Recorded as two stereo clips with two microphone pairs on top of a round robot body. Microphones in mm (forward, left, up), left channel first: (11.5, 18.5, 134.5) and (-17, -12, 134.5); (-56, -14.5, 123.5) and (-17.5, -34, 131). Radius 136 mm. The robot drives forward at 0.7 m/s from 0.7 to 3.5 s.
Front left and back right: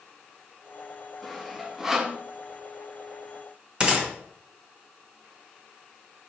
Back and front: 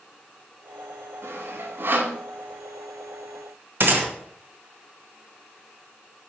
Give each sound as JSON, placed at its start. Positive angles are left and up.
{"t": 1.2, "sound": "sawing", "azimuth_deg": -40, "distance_m": 1.7}
{"t": 3.8, "sound": "a gunshot", "azimuth_deg": -70, "distance_m": 1.8}